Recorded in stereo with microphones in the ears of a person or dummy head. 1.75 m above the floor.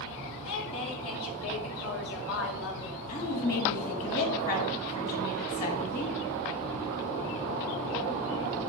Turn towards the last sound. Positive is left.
turn(degrees=45)  # may be behind; listen again after turning